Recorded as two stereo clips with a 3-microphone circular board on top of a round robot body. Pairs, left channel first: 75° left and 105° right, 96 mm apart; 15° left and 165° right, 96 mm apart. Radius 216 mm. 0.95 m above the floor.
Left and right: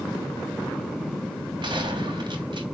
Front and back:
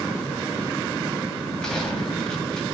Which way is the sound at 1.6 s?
70° right.